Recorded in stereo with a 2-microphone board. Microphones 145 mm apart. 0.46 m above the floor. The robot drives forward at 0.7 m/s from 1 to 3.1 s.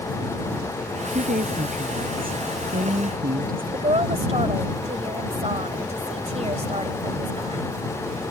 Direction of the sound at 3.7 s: 45° right (ahead or behind).